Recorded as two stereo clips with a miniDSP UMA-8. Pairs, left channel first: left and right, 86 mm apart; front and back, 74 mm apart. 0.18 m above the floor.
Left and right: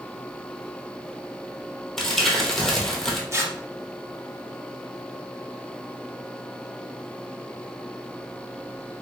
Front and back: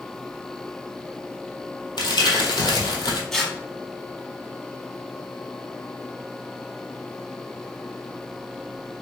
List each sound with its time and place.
2.0 s crumpling: 5° left, 0.9 m
3.3 s tearing paper: 80° right, 0.8 m